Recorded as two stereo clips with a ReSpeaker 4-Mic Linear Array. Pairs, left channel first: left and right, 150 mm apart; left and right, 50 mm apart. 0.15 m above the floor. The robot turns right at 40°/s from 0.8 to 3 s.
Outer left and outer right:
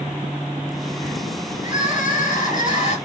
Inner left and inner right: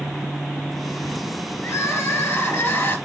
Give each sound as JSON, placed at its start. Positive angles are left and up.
{"t": 1.6, "sound": "crying", "azimuth_deg": 65, "distance_m": 3.0}